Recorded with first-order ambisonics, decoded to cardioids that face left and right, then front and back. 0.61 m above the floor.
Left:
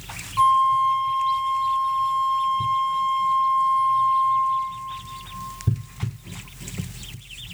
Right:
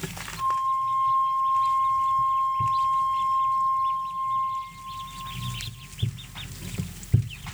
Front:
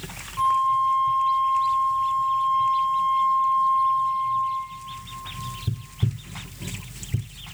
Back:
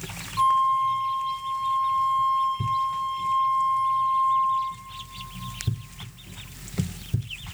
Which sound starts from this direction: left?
A flute, at 0.4 s.